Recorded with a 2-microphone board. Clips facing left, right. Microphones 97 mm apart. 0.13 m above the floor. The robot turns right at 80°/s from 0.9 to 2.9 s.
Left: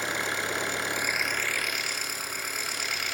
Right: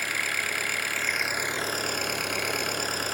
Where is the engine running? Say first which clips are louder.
Left 1 dB; 155° left, 1.1 m; by 3.1 s 45° right, 1.1 m.